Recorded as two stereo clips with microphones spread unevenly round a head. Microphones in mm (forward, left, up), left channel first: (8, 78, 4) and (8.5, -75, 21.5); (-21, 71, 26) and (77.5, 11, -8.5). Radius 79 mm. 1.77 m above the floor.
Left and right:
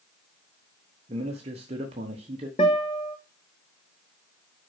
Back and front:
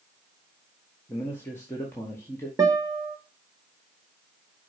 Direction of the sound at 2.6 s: 30° left.